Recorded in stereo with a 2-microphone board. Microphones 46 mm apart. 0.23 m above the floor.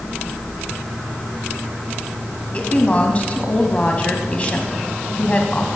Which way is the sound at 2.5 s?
30° left (ahead or behind).